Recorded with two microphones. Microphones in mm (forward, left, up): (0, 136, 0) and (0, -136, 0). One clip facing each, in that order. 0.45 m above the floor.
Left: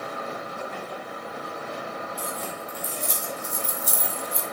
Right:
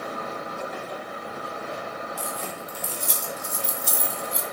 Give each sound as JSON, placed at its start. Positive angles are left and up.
{"t": 2.2, "sound": "keys jangling", "side_deg": -75, "distance_m": 4.0}